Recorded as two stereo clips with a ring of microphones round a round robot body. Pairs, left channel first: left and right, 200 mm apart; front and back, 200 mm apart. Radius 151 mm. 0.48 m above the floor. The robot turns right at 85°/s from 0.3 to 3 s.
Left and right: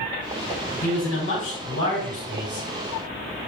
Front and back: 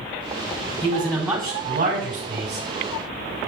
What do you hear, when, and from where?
0.8 s a man speaking: 65° left, 4 m; by 2.7 s 135° right, 4 m